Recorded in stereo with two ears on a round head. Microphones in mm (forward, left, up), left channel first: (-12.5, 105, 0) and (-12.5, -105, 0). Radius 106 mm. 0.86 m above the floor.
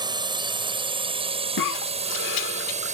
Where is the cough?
60° left (ahead or behind).